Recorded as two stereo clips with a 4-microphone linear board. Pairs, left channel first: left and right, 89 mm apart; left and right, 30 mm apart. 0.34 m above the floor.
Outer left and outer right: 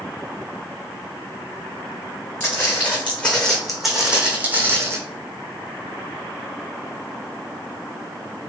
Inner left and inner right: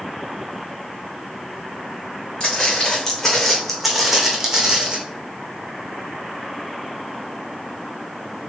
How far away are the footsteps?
About 1.5 m.